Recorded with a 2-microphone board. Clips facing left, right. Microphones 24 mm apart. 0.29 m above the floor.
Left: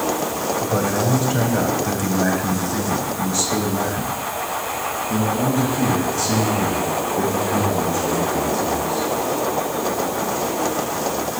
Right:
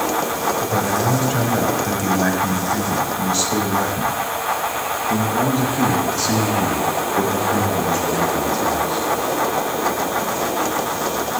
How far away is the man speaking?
About 1.5 m.